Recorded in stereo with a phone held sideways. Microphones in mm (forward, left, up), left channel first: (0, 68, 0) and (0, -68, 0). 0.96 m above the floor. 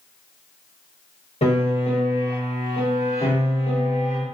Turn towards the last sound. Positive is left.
turn(degrees=55)  # may be behind; listen again after turning